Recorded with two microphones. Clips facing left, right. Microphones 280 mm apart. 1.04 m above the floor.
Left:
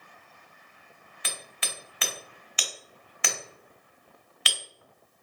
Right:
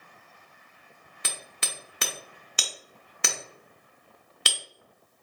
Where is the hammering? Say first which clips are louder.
Even; 50° right (ahead or behind), 0.9 m.